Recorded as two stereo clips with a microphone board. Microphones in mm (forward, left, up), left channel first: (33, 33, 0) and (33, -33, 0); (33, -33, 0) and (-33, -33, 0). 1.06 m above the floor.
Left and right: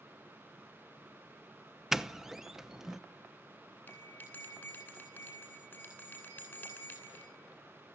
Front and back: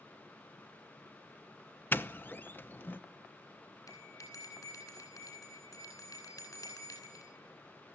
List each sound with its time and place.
1.9 s a doorbell: 10° right, 0.8 m
3.9 s a bell: 30° left, 9 m